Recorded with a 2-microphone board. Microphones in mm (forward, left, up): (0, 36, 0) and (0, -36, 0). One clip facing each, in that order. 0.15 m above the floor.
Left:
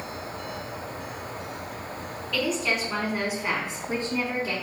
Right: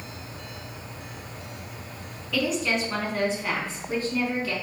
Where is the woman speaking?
5° right (ahead or behind), 1.3 m; by 4.5 s 30° left (ahead or behind), 1.1 m.